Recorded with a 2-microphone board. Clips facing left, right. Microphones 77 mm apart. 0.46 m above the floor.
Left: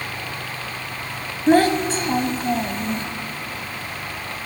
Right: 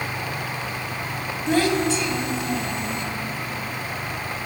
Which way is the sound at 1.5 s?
40° left (ahead or behind).